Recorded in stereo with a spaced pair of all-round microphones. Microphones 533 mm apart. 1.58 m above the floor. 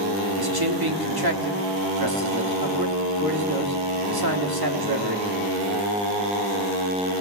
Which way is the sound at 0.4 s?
45° right (ahead or behind).